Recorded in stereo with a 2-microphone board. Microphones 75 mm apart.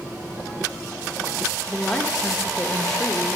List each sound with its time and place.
1.7 s a woman speaking: 5° left (ahead or behind), 1.1 m